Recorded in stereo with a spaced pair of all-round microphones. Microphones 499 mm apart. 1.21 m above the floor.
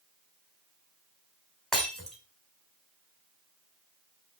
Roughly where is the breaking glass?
Centre.